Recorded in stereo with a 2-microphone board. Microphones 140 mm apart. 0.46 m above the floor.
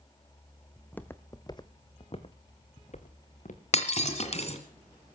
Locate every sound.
0.8 s footsteps: 5° left (ahead or behind), 0.9 m; by 3.6 s 60° left (ahead or behind), 1.9 m
3.7 s breaking glass: 50° left (ahead or behind), 1.8 m